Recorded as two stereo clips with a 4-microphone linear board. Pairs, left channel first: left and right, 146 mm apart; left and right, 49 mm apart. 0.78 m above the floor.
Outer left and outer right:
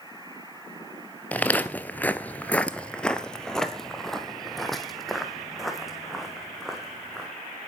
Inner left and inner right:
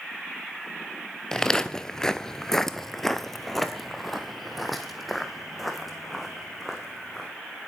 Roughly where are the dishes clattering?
No dishes clattering in this recording.